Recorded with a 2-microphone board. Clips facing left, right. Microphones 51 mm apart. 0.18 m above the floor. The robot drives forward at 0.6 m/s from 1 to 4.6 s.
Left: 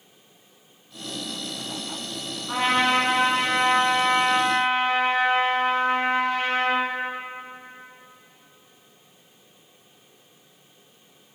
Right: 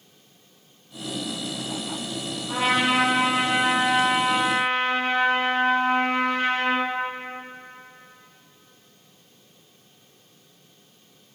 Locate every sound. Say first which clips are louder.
2.5 s a trumpet: left 1 dB; 30° left (ahead or behind), 2.0 m; by 6.8 s 20° left (ahead or behind), 3 m